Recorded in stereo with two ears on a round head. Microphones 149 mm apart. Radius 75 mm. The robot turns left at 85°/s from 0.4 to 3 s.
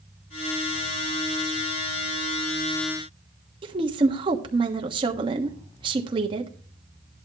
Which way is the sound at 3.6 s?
30° right (ahead or behind).